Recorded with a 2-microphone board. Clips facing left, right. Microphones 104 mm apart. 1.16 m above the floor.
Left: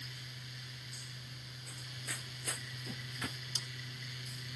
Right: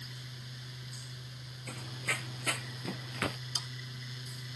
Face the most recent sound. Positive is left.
turn(degrees=-80)